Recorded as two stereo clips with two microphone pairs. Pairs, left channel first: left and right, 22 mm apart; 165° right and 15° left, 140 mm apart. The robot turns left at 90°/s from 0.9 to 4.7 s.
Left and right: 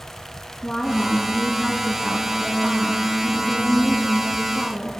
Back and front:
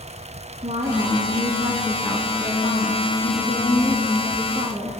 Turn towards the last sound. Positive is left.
turn(degrees=60)